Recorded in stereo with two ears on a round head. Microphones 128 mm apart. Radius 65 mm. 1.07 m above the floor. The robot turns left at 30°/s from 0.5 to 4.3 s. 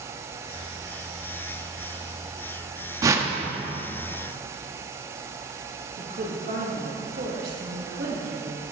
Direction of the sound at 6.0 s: 65° right (ahead or behind).